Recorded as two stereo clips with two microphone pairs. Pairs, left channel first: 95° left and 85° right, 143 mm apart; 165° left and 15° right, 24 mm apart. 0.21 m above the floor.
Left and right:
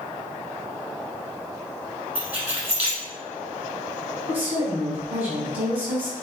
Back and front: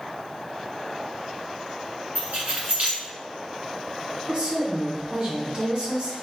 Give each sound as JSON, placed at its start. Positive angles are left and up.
{"t": 2.1, "sound": "keys jangling", "azimuth_deg": -10, "distance_m": 1.6}
{"t": 4.3, "sound": "a woman speaking", "azimuth_deg": -15, "distance_m": 1.9}